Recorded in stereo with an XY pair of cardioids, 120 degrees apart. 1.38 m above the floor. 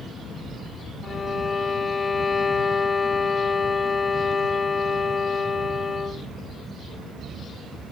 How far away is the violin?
About 1.6 m.